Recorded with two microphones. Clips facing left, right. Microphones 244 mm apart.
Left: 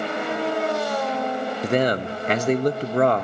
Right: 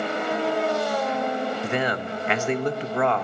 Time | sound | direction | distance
1.6 | a man speaking | 40° left (ahead or behind) | 0.7 m